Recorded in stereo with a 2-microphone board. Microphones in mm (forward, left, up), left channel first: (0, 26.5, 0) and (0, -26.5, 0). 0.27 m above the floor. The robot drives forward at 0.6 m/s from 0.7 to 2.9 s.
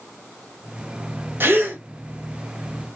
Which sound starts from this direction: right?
A gasp, at 1.4 s.